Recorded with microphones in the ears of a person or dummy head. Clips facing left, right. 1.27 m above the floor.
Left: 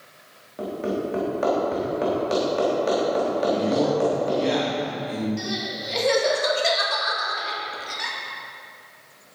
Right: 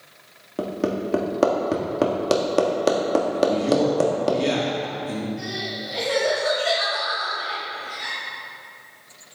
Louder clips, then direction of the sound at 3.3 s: Right 3 dB; 40° right (ahead or behind).